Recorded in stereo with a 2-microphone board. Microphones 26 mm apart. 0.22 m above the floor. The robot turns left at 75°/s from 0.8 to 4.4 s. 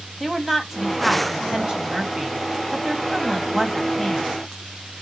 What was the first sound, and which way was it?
A woman speaking, 5° right (ahead or behind).